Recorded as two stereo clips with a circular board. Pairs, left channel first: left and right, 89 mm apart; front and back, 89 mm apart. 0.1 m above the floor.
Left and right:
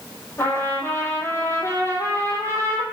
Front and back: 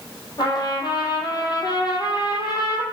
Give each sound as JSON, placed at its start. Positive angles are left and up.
{"t": 0.4, "sound": "a trumpet", "azimuth_deg": 30, "distance_m": 1.3}